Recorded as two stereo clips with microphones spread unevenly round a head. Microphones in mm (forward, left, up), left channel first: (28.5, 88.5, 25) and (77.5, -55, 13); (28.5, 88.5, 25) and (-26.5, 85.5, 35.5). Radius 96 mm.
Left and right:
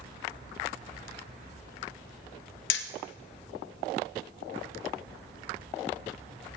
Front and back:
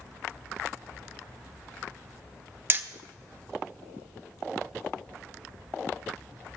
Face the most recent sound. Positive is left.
turn(degrees=130)